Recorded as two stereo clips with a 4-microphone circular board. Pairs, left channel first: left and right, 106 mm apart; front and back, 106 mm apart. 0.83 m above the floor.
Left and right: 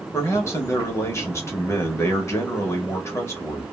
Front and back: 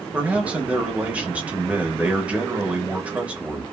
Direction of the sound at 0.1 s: 115° left.